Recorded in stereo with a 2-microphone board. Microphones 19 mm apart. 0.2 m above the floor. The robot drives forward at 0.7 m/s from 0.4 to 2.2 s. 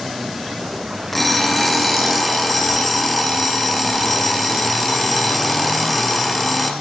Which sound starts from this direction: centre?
An alarm clock, at 1.1 s.